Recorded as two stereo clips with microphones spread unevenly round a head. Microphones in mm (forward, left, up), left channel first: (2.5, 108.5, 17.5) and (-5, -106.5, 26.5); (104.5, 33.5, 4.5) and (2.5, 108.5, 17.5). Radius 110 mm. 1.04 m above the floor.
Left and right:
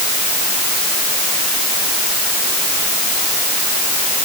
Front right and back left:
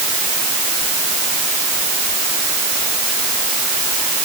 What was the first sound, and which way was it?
Only background noise.